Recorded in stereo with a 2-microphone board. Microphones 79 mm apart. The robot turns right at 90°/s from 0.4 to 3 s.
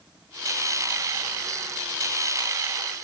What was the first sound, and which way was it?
Only background noise.